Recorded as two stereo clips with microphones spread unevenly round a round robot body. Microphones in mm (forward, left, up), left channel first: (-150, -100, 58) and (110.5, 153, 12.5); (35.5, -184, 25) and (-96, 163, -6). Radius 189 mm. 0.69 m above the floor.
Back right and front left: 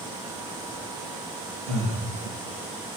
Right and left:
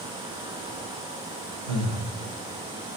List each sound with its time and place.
1.7 s breathing: 80° left, 1.6 m